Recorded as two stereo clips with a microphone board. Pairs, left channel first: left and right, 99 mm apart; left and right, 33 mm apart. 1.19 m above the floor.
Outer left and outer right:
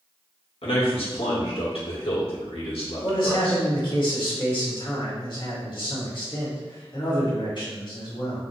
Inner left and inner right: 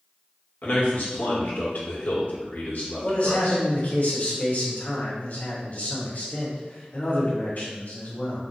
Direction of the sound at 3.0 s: 50° left (ahead or behind).